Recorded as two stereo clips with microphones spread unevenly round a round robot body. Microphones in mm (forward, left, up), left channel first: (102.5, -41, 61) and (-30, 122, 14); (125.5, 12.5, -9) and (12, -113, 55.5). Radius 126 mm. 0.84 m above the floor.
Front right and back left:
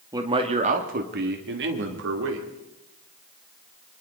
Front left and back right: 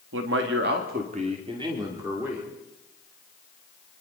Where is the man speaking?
165° right, 2.0 m; by 2.5 s 135° left, 3 m.